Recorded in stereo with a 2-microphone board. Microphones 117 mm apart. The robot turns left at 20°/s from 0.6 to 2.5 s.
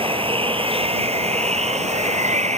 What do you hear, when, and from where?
0.0 s running water: 55° right; by 2.6 s 90° right